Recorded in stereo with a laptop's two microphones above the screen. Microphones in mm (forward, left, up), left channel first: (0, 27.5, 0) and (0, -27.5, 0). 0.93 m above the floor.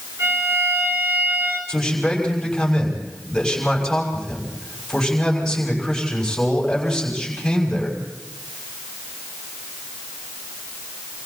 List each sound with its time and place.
0.2 s a violin: 60° right (ahead or behind), 7.5 m
1.7 s a man speaking: 5° left (ahead or behind), 6 m